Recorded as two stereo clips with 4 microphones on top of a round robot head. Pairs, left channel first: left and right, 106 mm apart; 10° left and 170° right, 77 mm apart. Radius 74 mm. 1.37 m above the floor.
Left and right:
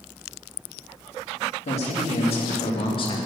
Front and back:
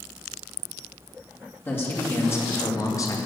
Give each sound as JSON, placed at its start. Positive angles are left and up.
{"t": 1.6, "sound": "a man speaking", "azimuth_deg": 70, "distance_m": 3.0}